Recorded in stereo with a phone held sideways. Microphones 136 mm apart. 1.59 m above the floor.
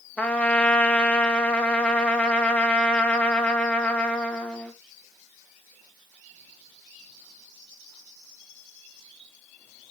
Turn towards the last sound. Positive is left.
turn(degrees=10)  # may be behind; listen again after turning